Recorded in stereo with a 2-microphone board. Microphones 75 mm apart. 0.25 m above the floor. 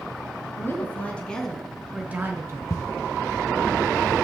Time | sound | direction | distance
0.6 | a woman speaking | 30° left (ahead or behind) | 2.5 m
2.7 | footsteps | 45° left (ahead or behind) | 1.9 m